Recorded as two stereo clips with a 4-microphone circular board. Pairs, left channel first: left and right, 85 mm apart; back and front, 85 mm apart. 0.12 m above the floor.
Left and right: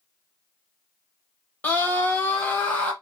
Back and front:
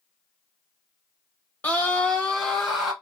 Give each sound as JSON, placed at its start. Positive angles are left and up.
{"t": 1.6, "sound": "a scream", "azimuth_deg": 130, "distance_m": 1.5}